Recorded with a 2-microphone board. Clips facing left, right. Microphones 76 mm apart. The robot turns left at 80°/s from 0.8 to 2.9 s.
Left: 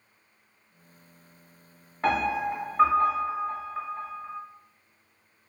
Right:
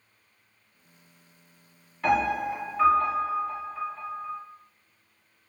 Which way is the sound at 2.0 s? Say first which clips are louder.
Right 1 dB; 120° left.